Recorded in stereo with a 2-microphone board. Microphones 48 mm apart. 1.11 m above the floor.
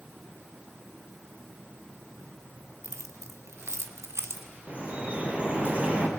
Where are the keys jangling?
75° right (ahead or behind), 1.5 m; by 4.5 s 65° right (ahead or behind), 2.0 m.